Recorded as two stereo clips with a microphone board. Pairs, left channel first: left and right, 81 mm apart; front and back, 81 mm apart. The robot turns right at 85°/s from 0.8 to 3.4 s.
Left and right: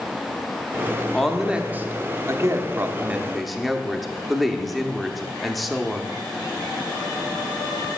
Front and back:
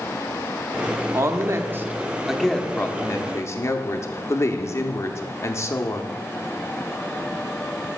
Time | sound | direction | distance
1.1 | a woman speaking | 165° left | 0.7 m